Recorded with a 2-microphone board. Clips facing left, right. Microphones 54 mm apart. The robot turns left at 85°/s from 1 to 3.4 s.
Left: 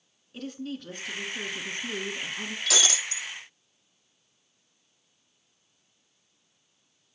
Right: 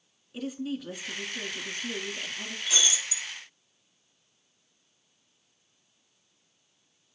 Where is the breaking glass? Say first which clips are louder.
Left 2 dB; 90° left, 1.3 m; by 3.3 s 35° left, 1.3 m.